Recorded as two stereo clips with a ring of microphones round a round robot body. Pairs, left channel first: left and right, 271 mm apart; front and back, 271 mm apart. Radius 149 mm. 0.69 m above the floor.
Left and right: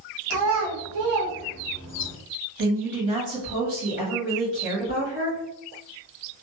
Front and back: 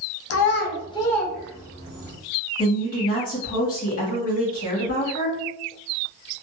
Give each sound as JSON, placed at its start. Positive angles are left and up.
{"t": 0.3, "sound": "a child speaking", "azimuth_deg": -35, "distance_m": 0.5}
{"t": 2.6, "sound": "a woman speaking", "azimuth_deg": -55, "distance_m": 1.4}